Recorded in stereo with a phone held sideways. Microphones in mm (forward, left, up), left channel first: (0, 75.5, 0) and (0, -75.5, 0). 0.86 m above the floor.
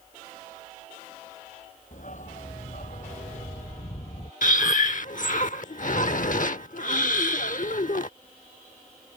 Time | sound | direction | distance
1.9 | a dog barking | 55° left (ahead or behind) | ?
4.4 | breathing | 60° left (ahead or behind) | ?